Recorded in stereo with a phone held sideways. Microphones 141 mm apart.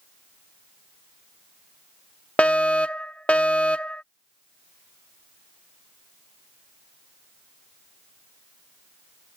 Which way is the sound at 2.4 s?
10° left (ahead or behind).